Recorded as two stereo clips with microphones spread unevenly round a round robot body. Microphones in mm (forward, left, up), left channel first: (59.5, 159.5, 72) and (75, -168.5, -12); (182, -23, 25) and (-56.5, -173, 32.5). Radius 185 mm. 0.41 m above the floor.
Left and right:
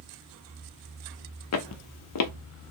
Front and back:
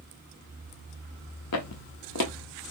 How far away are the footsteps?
About 0.7 m.